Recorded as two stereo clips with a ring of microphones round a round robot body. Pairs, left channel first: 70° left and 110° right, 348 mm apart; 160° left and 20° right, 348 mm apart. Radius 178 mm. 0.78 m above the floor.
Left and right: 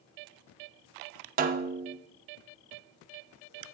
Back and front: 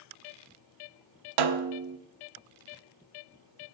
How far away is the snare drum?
About 0.9 m.